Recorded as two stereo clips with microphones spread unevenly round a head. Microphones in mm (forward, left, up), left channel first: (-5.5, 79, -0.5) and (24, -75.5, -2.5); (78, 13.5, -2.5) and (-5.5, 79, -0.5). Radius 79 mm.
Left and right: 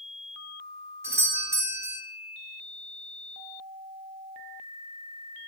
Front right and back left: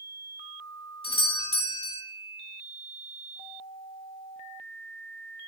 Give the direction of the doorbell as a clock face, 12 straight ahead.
12 o'clock.